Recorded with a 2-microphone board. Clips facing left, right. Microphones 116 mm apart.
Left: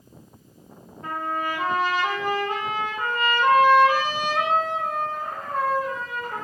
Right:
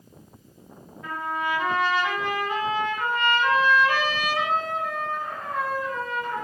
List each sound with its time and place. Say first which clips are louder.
1.0 s a trumpet: left 1 dB; 40° left (ahead or behind), 2.5 m